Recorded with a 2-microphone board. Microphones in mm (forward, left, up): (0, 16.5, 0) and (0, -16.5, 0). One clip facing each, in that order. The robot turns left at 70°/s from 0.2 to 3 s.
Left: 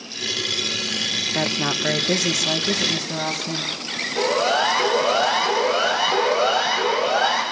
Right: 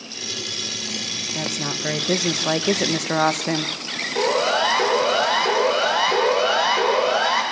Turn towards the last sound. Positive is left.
turn(degrees=-45)  # may be behind; listen again after turning